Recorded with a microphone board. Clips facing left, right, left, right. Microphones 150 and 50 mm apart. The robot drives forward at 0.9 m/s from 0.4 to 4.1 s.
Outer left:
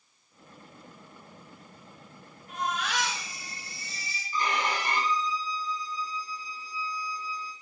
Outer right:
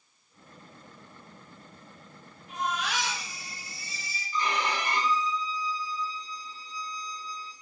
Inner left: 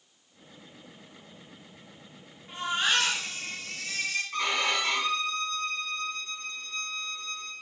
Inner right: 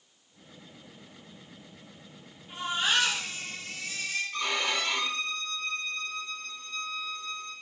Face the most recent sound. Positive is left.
turn(degrees=55)  # may be behind; listen again after turning